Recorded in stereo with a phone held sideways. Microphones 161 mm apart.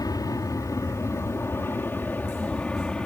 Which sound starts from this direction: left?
An aircraft, at 0.0 s.